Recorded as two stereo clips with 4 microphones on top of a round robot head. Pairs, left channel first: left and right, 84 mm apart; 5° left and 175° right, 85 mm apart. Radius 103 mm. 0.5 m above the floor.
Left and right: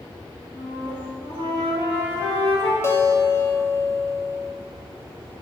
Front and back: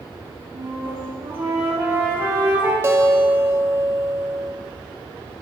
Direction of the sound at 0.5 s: 125° left.